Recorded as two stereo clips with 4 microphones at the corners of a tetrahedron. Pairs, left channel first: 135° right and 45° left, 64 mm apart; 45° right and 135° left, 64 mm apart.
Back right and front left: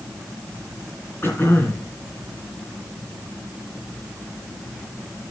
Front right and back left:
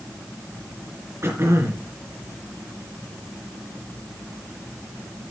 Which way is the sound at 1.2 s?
175° left.